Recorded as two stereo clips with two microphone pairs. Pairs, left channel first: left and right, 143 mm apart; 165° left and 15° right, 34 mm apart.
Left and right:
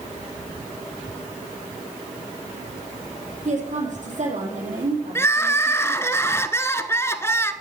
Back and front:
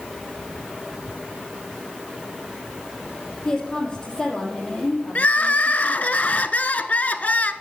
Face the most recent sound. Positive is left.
turn(degrees=155)